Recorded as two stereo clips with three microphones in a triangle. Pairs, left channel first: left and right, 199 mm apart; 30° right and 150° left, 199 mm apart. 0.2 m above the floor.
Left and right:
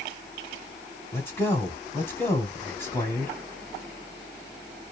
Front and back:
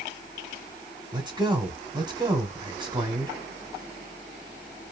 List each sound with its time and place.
1.1 s a man speaking: 150° left, 1.5 m